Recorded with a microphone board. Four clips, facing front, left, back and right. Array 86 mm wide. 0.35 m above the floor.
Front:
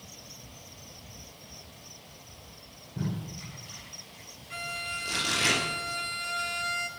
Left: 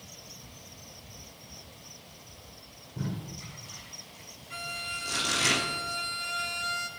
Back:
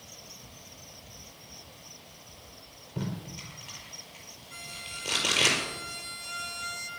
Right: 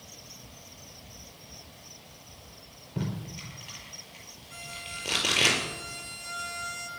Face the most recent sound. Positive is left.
turn(degrees=25)